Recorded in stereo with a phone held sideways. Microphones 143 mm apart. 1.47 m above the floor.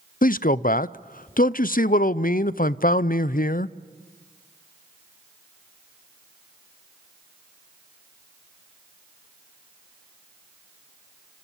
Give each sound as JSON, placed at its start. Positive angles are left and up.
{"t": 0.2, "sound": "a man speaking", "side_deg": 75, "distance_m": 0.5}